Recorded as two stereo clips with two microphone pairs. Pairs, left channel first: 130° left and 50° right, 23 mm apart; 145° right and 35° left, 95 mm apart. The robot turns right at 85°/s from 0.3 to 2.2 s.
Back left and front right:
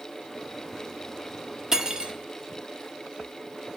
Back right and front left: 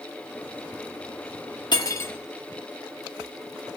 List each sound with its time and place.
1.7 s cutlery clinking: 110° right, 1.4 m; by 2.1 s 75° right, 1.4 m